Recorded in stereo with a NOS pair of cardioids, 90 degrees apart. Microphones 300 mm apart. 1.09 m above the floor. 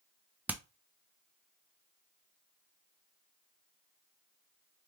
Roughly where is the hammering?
Ahead.